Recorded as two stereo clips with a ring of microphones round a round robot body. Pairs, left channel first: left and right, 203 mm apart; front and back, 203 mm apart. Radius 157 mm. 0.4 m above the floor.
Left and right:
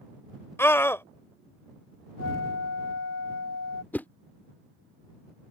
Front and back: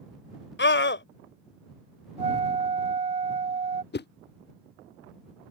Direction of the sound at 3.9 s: 10° left.